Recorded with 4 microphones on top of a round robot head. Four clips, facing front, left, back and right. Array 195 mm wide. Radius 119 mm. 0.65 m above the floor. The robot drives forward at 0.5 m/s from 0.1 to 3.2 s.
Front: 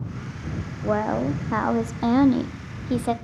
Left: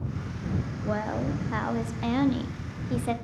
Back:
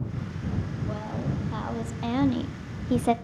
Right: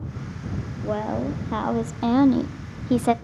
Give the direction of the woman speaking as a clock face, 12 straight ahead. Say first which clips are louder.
Right 5 dB, front 14 dB; 1 o'clock.